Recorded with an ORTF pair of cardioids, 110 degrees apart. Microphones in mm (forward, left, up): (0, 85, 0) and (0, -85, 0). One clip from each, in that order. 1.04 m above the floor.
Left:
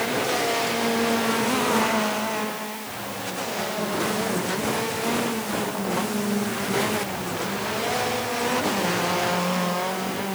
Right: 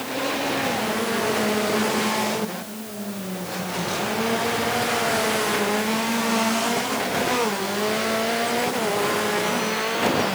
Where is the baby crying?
I don't hear a baby crying.